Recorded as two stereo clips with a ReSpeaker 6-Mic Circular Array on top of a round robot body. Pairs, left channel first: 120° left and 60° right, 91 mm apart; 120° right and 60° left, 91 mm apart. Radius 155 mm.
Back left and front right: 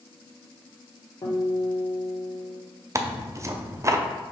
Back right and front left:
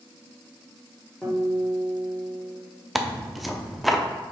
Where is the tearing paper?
30° right, 0.8 m.